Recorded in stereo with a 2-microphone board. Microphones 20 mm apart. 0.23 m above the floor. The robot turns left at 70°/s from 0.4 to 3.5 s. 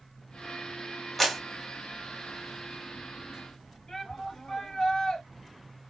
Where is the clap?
10° left (ahead or behind), 0.9 m; by 1.4 s 15° left (ahead or behind), 0.9 m.